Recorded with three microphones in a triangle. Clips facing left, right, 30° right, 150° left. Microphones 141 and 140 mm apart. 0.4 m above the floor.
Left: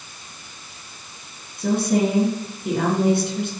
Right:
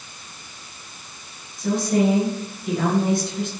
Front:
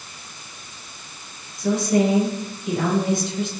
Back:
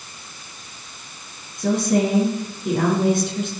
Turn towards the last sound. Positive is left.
turn(degrees=115)